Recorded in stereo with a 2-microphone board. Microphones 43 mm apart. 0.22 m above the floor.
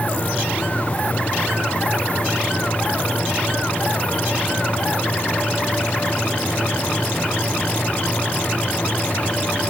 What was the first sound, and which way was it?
Only background noise.